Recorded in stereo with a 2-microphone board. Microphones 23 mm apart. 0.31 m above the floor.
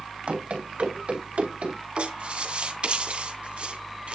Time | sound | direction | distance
0.3 | running footsteps | 65° right (ahead or behind) | 4 m
2.0 | writing | 55° right (ahead or behind) | 2.5 m